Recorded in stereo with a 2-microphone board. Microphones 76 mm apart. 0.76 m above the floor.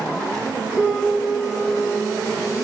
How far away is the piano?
About 3 m.